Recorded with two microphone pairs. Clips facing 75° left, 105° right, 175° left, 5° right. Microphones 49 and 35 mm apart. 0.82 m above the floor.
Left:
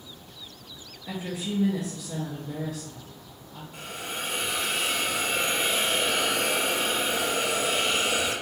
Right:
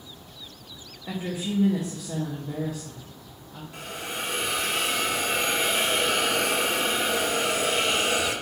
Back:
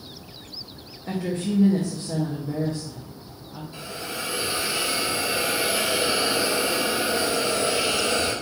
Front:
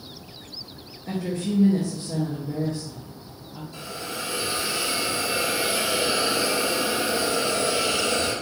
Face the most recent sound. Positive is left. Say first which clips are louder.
# right 1 dB, even
turn(degrees=-110)